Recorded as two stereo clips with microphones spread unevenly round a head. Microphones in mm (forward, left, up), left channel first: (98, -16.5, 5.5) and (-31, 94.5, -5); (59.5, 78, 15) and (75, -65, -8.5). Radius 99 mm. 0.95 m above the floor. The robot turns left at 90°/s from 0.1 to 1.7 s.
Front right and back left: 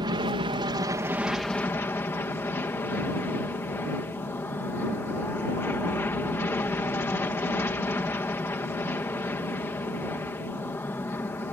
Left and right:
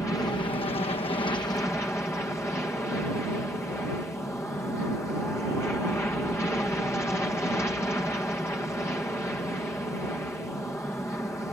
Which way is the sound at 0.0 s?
170° left.